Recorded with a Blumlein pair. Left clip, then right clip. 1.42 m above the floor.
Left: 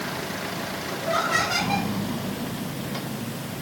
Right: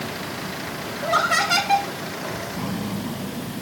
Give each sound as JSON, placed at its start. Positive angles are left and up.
{"t": 1.0, "sound": "laughter", "azimuth_deg": -25, "distance_m": 5.0}